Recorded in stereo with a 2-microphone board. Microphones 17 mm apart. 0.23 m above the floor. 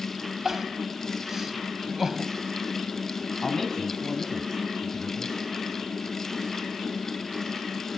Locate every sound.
0.5 s crying: 25° right (ahead or behind), 1.3 m
3.4 s a man speaking: 30° left (ahead or behind), 1.5 m